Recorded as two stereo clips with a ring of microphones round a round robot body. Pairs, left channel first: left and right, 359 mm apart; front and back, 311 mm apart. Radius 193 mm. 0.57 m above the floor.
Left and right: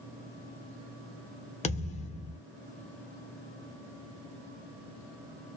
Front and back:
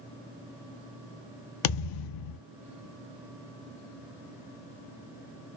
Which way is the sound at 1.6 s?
15° left.